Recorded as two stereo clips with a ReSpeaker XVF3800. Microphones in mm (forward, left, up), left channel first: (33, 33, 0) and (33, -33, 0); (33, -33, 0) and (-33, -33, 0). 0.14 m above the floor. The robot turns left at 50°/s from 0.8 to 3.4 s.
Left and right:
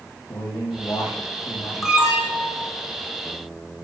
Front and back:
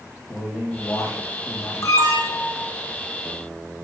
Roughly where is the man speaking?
Ahead left.